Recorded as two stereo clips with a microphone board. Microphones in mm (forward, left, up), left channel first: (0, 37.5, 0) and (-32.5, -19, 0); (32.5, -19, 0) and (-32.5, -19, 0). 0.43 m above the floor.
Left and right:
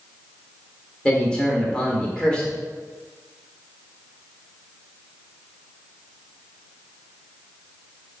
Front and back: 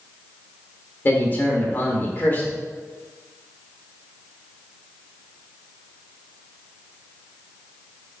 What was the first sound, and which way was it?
A man speaking, straight ahead.